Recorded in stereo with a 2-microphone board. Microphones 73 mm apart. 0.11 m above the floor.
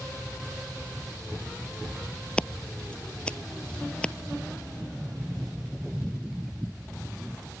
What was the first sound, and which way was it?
Scissors, 15° left (ahead or behind).